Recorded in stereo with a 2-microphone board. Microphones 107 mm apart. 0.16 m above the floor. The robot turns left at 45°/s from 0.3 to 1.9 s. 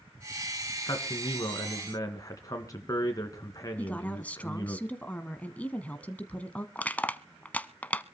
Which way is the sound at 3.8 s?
15° left (ahead or behind).